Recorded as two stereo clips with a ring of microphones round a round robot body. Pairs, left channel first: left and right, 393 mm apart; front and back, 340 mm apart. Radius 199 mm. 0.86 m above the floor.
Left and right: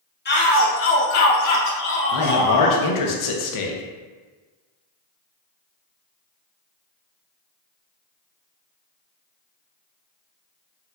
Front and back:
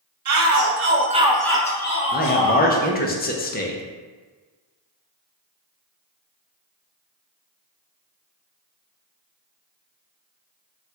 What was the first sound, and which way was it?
A shout, 150° left.